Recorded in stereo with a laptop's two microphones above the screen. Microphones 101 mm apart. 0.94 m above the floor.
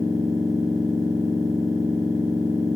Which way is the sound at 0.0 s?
30° right (ahead or behind).